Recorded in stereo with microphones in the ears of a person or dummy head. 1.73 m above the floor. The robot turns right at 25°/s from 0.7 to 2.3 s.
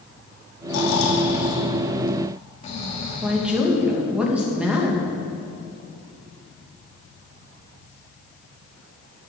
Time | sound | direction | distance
0.7 | snoring | 100° left | 2.5 m
3.2 | a woman speaking | 5° right (ahead or behind) | 2.5 m